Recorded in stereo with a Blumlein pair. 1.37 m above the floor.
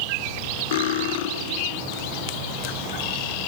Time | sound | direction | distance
0.7 | cutlery clinking | 55° left | 1.3 m